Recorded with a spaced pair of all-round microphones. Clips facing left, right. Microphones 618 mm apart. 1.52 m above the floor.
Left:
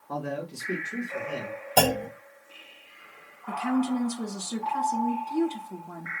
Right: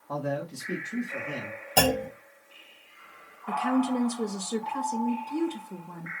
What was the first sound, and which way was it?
A man speaking, 10° right (ahead or behind).